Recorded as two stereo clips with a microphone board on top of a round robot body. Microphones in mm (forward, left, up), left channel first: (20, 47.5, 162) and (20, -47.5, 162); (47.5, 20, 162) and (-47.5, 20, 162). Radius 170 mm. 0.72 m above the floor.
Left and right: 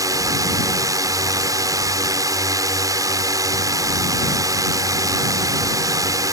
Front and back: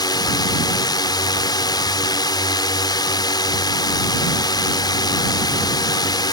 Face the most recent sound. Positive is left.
turn(degrees=-40)